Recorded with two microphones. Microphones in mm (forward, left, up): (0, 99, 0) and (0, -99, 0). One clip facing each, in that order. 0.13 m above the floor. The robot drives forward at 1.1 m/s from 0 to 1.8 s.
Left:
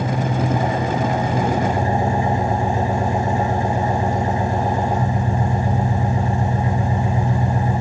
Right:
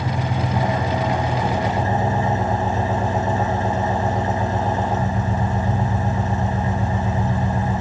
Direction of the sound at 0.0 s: 5° left (ahead or behind).